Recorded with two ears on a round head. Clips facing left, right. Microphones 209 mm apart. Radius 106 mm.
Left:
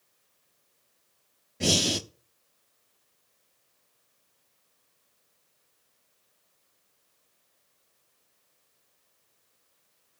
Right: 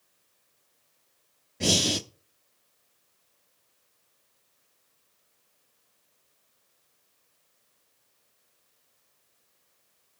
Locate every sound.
1.6 s breathing: centre (ahead or behind), 0.6 m